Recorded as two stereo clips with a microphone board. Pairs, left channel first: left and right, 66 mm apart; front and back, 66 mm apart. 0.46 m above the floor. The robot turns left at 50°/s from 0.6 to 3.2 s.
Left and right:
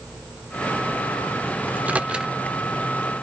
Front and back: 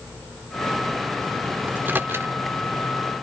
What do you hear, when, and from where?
1.7 s a microwave: 130° right, 0.9 m; by 2.3 s 160° right, 0.9 m